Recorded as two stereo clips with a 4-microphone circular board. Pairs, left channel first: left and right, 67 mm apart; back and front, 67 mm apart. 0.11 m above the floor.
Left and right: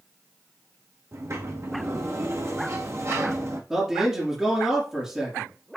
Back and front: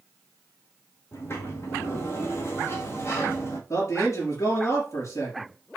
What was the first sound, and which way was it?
A sliding door, 130° right.